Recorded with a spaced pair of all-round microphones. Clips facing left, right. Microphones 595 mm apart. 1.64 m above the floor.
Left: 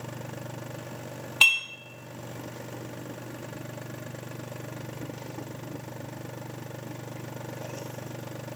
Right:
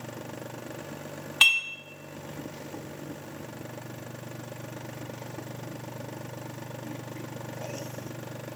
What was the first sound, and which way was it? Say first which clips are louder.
Dishes clattering: left 1 dB; 45° right (ahead or behind).